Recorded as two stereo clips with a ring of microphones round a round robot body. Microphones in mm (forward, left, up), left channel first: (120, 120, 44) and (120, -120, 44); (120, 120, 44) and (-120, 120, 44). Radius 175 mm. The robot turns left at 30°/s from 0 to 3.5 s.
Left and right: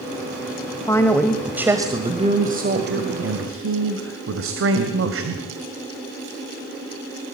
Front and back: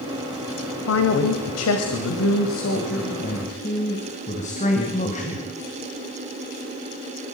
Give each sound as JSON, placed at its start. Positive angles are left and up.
{"t": 0.9, "sound": "a man speaking", "azimuth_deg": 15, "distance_m": 2.0}